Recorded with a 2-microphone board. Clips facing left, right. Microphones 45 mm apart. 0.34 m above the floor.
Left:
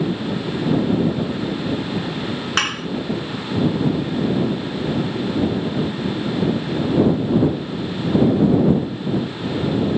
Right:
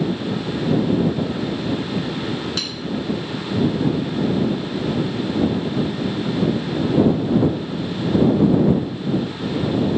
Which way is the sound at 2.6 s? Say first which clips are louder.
Left 7 dB; 60° left (ahead or behind).